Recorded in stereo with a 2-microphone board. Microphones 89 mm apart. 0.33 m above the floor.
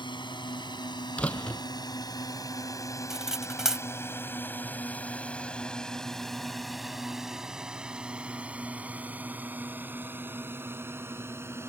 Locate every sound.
0.0 s a drone: 60° left (ahead or behind); by 11.7 s 30° right (ahead or behind)
1.2 s a door slam: 15° left (ahead or behind)
3.1 s cutlery clinking: 5° right (ahead or behind)